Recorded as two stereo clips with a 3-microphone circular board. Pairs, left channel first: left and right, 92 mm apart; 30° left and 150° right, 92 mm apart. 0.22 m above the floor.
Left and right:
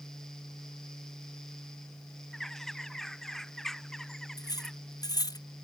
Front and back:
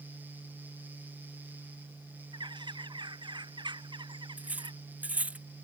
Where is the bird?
175° left.